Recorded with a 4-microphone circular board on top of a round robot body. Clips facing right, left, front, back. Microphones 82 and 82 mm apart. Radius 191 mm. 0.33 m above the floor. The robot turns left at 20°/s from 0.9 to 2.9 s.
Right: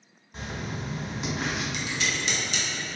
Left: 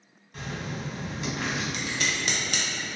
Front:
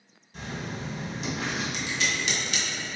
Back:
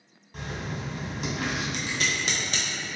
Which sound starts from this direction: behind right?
Writing, at 0.3 s.